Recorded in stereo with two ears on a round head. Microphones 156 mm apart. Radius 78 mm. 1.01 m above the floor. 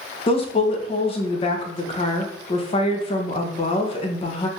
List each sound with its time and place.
0.3 s a woman speaking: 35° left (ahead or behind), 0.7 m